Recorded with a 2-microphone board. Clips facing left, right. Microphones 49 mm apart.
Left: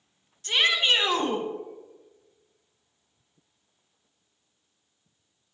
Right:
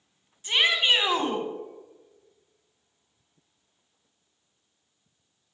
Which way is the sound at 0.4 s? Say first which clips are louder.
Even; 15° right (ahead or behind).